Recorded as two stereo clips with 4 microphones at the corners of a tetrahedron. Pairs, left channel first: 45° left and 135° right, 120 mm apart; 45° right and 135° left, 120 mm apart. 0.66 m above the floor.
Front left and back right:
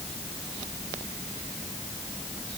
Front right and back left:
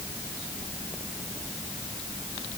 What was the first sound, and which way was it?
Only background noise.